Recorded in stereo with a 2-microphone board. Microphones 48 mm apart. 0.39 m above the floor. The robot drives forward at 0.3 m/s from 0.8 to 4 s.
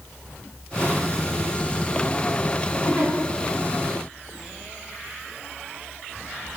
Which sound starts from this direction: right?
A giggle, at 2.8 s.